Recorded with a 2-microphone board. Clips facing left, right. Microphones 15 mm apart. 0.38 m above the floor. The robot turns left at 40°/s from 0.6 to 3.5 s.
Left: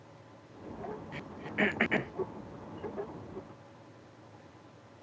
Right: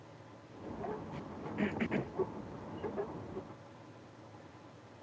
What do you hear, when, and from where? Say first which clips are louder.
1.1 s throat clearing: left 5 dB; 80° left; by 2.1 s 55° left (ahead or behind)